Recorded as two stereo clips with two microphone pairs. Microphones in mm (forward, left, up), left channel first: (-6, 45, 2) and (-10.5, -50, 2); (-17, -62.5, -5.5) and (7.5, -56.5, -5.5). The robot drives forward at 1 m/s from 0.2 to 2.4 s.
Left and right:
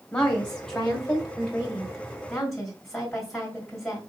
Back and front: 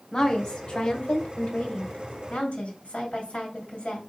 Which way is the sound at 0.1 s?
140° left.